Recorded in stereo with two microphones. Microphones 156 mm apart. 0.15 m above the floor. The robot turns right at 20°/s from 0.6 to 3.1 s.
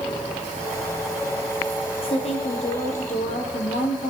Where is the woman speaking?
40° left (ahead or behind), 4.5 m; by 4.1 s 60° left (ahead or behind), 4.5 m.